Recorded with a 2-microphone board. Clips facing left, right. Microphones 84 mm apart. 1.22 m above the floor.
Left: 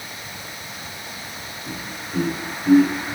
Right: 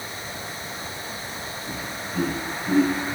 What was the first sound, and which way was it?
Laughter, 70° left (ahead or behind).